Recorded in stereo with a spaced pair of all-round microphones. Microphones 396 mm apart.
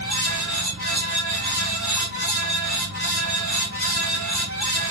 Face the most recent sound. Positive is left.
turn(degrees=-45)  # may be behind; listen again after turning